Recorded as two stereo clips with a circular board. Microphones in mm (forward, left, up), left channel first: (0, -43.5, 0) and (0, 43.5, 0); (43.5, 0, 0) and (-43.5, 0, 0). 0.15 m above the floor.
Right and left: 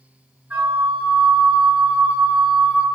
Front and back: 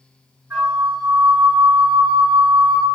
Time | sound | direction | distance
0.5 | a flute | 135° left | 1.2 m